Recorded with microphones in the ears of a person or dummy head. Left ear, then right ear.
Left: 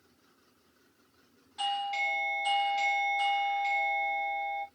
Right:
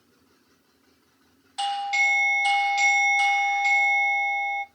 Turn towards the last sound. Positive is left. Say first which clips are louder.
# right 8 dB
turn(degrees=-25)  # may be behind; listen again after turning